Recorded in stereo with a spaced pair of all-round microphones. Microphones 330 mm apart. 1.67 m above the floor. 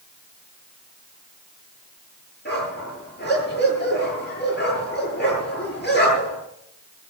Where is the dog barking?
30° left (ahead or behind), 8.5 m.